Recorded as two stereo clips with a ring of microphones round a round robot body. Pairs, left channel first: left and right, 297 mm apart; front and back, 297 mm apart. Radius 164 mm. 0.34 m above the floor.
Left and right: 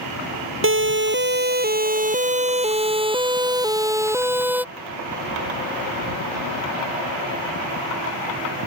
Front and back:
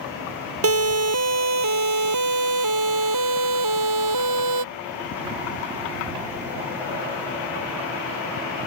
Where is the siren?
140° right; by 4.6 s 175° right.